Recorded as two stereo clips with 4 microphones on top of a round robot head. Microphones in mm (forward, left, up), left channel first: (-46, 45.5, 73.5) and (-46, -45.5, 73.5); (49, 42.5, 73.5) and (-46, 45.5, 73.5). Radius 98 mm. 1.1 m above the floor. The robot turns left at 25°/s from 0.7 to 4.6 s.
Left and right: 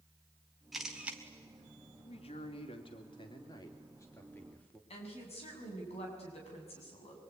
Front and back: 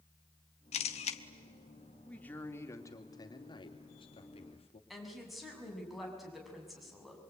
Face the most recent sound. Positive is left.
turn(degrees=90)